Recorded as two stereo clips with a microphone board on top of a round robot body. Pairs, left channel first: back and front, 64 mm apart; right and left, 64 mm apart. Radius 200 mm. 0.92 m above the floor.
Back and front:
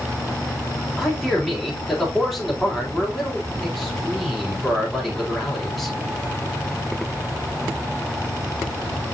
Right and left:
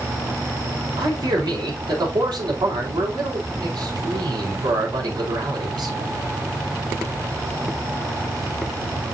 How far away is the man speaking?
About 4 m.